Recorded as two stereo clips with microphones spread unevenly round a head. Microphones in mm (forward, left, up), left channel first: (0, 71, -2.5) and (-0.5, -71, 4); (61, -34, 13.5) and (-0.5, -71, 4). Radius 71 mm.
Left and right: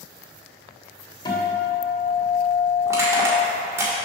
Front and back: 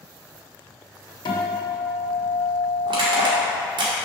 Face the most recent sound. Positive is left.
turn(degrees=-160)